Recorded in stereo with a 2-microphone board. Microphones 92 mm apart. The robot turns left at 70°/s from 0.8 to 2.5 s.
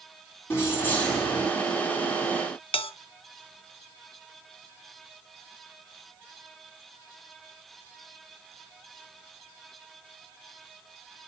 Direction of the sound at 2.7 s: 80° left.